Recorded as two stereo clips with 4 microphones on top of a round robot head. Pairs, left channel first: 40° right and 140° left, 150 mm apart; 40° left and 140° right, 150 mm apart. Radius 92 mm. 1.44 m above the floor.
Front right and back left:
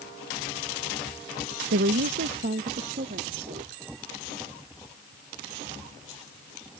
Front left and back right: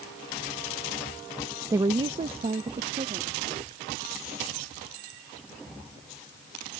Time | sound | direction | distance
1.7 | a woman speaking | 150° left | ?